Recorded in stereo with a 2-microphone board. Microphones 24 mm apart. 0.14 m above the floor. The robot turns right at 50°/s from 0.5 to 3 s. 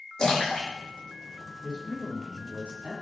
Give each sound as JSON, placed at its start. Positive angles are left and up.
{"t": 0.2, "sound": "a splash", "side_deg": 35, "distance_m": 5.0}
{"t": 1.6, "sound": "a man speaking", "azimuth_deg": -160, "distance_m": 5.0}